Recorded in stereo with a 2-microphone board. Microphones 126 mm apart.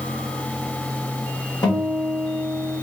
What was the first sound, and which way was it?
A guitar, 30° left (ahead or behind).